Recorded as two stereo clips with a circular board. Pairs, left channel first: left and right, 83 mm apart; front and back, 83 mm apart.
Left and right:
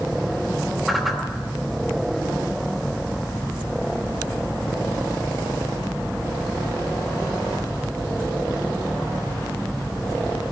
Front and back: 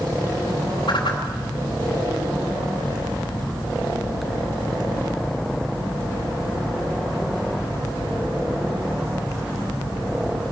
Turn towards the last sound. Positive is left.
turn(degrees=0)